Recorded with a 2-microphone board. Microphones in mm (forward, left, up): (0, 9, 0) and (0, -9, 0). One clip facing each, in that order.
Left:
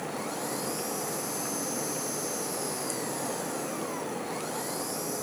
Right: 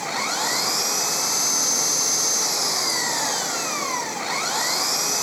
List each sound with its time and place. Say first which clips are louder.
0.0 s an engine running: right 9 dB; 55° right (ahead or behind)